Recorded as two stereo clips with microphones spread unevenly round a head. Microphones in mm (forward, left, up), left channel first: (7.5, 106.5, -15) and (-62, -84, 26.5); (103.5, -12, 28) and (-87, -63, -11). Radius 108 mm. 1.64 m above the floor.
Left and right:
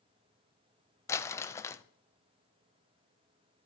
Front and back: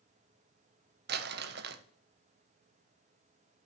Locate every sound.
1.1 s crumpling: 150° left, 0.7 m